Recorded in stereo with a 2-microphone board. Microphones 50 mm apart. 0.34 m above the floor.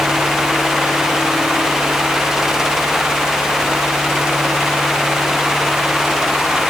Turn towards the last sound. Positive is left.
No sound to turn to.